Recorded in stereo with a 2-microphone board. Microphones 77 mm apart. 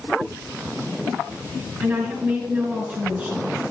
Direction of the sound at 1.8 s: 25° right (ahead or behind).